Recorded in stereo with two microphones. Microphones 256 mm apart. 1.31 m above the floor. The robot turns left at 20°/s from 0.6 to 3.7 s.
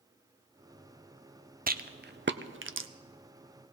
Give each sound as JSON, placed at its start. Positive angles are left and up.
{"t": 1.7, "sound": "a rattle", "side_deg": -35, "distance_m": 0.5}